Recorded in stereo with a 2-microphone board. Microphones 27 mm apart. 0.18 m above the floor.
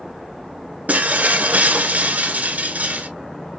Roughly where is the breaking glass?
Right.